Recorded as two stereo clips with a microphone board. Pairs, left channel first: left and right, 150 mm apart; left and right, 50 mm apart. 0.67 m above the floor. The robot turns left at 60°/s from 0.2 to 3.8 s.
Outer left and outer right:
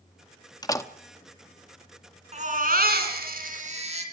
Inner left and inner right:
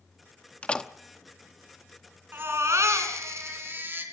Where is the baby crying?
45° right, 2.5 m; by 4.0 s 135° right, 2.5 m.